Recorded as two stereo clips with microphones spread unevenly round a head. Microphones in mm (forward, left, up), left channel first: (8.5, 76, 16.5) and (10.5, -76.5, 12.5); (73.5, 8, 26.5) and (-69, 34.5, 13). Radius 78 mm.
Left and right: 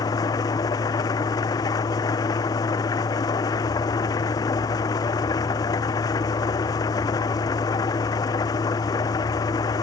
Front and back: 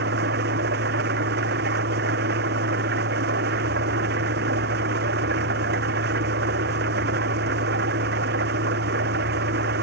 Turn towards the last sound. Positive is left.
turn(degrees=160)